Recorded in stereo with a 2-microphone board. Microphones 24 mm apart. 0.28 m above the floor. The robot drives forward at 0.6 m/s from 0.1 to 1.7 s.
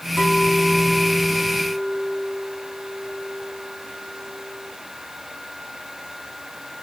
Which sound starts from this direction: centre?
A clink, at 0.2 s.